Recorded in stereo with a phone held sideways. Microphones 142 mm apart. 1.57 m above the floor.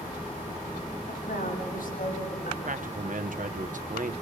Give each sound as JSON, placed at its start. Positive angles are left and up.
{"t": 1.1, "sound": "a woman speaking", "side_deg": 85, "distance_m": 8.0}
{"t": 2.6, "sound": "a man speaking", "side_deg": -65, "distance_m": 1.2}